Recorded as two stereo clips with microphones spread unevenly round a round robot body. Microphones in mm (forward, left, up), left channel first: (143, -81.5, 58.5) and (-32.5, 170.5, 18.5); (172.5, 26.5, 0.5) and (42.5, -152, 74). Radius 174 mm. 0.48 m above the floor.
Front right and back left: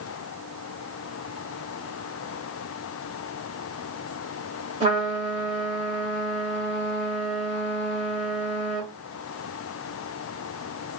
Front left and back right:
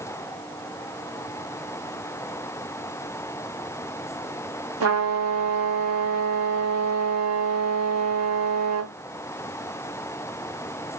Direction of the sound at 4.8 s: 165° right.